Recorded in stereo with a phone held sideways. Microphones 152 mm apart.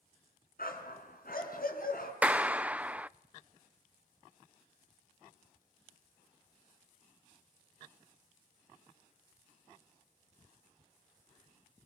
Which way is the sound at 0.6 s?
75° left (ahead or behind).